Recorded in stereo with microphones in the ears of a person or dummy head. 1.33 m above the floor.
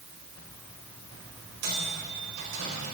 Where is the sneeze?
No sneeze in this recording.